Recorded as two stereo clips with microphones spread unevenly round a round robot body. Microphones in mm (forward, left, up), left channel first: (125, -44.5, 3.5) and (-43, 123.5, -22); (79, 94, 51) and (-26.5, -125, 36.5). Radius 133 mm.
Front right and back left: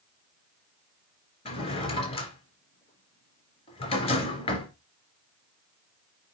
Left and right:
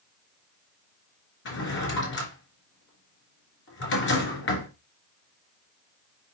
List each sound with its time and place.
1.4 s a drawer: 20° left, 3.5 m